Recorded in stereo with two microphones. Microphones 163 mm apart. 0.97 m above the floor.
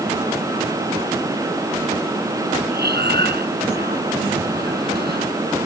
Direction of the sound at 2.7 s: 85° right.